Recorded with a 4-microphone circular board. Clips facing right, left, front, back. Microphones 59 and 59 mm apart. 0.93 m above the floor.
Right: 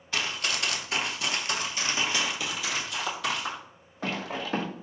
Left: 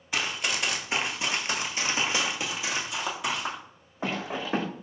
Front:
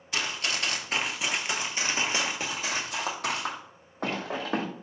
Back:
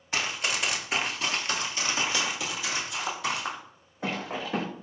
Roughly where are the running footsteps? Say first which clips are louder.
Left 1 dB, back 1 dB; behind left.